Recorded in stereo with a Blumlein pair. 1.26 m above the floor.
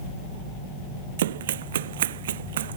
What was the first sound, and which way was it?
Running footsteps, 60° right.